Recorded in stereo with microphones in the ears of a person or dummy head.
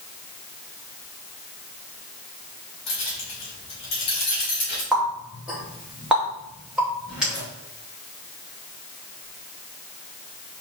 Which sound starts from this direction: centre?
A running tap, at 4.9 s.